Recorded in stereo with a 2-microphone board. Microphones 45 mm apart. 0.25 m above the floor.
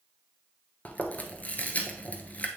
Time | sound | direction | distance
0.8 | chewing | 35° left (ahead or behind) | 0.9 m